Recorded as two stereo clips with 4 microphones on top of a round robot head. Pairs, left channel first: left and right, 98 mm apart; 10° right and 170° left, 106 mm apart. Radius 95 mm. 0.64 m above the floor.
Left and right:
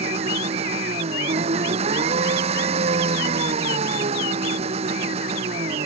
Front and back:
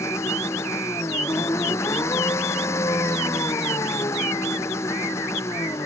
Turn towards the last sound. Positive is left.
turn(degrees=-75)